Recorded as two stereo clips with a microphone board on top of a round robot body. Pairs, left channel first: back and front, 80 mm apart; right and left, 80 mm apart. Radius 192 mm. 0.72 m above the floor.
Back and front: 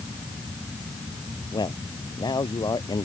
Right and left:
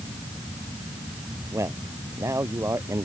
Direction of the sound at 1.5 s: 145° left.